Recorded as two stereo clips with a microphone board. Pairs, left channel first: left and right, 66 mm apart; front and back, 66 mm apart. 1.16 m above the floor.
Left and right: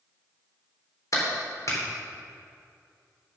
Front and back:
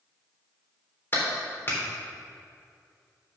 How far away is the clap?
About 3.5 m.